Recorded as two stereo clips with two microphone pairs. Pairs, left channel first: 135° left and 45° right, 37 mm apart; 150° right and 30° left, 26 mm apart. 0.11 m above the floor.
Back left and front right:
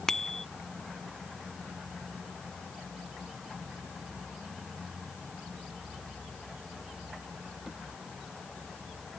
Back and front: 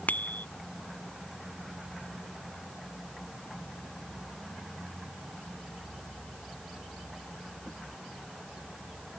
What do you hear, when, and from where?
0.1 s a bicycle bell: 145° right